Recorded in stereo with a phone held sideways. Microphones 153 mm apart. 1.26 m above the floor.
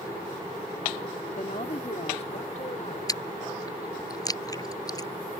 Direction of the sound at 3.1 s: 25° left (ahead or behind).